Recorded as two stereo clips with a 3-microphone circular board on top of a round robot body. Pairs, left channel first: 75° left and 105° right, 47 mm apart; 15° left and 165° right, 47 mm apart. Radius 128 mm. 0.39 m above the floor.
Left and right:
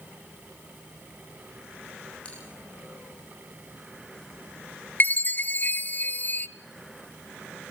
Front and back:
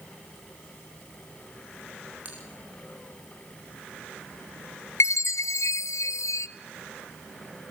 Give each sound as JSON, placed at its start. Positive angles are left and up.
{"t": 2.2, "sound": "a bell", "azimuth_deg": 140, "distance_m": 5.5}
{"t": 5.0, "sound": "a chime", "azimuth_deg": 25, "distance_m": 0.6}